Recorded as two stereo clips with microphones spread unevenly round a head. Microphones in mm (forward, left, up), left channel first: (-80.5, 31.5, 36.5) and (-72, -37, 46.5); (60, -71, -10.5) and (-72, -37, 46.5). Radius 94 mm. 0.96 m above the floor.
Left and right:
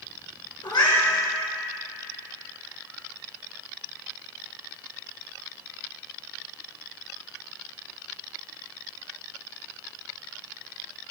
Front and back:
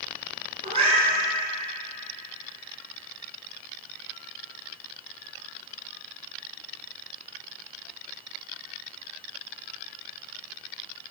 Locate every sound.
0.6 s a cat meowing: 110° left, 3.5 m